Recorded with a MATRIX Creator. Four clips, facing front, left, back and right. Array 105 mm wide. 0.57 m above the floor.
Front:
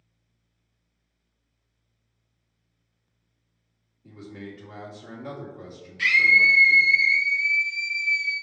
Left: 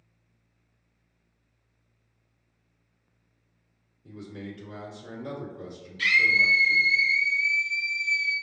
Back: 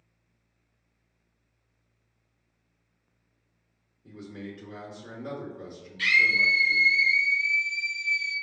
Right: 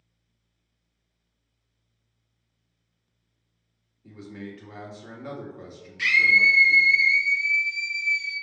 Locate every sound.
4.0 s a man speaking: 60° right, 1.7 m
6.0 s a scream: 65° right, 1.3 m